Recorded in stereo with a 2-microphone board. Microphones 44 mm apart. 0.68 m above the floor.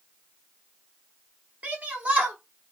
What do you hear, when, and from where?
1.6 s a shout: 35° right (ahead or behind), 1.4 m